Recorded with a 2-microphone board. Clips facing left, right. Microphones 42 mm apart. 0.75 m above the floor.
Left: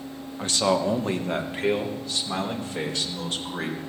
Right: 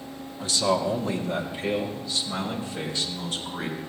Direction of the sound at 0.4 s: 45° left (ahead or behind).